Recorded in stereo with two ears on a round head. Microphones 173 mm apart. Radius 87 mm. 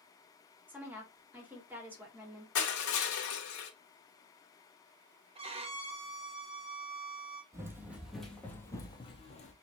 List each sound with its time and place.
0.7 s a woman speaking: 10° right (ahead or behind), 2 m
2.5 s crushing: 85° left, 1.3 m
5.3 s a violin: 30° right (ahead or behind), 1.0 m
7.5 s running footsteps: 15° right (ahead or behind), 1.2 m; by 9.5 s 35° left (ahead or behind), 1.1 m